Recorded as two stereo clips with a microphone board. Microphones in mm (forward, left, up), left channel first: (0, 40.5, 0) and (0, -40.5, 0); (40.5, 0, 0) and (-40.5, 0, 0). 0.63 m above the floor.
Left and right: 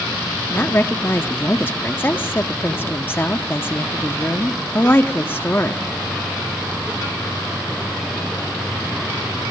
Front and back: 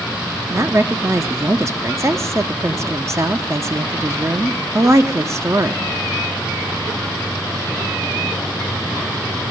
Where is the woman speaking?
145° left, 0.9 m.